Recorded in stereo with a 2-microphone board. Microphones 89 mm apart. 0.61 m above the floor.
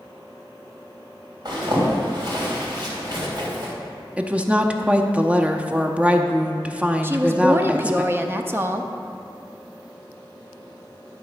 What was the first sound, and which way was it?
A zipper, 50° right (ahead or behind).